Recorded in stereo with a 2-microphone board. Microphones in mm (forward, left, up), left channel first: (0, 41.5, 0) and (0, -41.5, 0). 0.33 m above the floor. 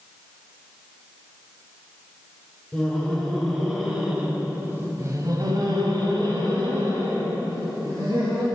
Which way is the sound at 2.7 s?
10° left (ahead or behind).